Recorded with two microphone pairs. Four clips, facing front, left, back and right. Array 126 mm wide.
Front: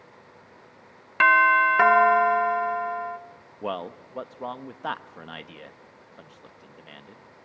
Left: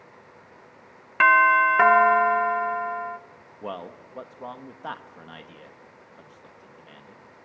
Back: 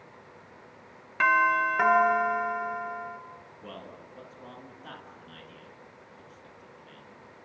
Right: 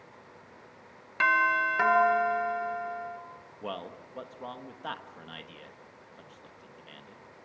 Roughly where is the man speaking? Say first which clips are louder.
Left 3 dB, front 14 dB; ahead.